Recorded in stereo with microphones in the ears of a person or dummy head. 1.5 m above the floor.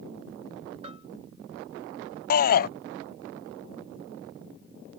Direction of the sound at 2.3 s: 55° left (ahead or behind).